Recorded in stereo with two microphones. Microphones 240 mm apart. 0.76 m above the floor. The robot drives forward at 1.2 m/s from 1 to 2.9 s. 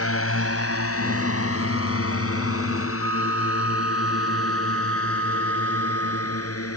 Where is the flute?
70° right (ahead or behind).